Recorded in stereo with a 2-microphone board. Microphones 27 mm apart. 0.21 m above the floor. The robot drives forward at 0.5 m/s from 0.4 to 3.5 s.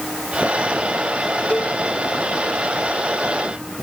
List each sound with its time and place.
1.5 s a cowbell: 55° left (ahead or behind)